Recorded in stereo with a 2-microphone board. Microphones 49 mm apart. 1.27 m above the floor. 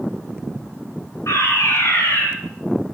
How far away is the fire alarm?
About 8.5 m.